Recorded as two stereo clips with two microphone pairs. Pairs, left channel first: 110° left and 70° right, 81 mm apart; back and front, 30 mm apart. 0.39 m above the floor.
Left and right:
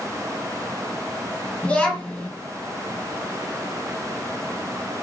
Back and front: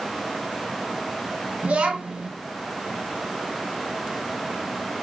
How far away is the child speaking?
About 1.8 m.